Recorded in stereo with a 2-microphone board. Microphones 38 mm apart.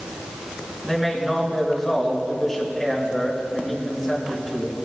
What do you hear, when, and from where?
0.8 s a man speaking: centre (ahead or behind), 3 m